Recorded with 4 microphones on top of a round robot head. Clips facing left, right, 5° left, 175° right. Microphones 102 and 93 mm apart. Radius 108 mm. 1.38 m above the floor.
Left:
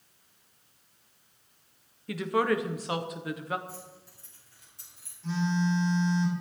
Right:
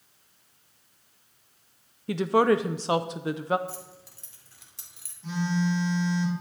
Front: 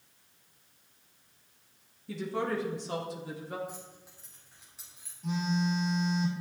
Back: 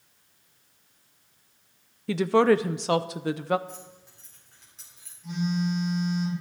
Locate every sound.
2.1 s a woman speaking: 155° right, 0.6 m
3.7 s keys jangling: 80° right, 2.5 m
5.2 s a phone buzzing: 20° right, 6.5 m